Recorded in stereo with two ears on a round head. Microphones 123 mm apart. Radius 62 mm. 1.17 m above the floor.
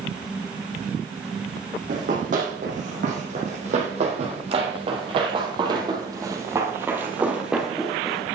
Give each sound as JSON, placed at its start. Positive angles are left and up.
{"t": 1.9, "sound": "running footsteps", "side_deg": -60, "distance_m": 4.0}